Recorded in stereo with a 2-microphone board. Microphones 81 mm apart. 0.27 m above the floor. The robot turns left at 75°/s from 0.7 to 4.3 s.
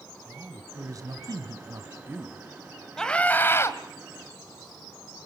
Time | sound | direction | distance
0.2 | a man speaking | 40° right | 2.5 m
3.0 | a scream | 170° left | 1.6 m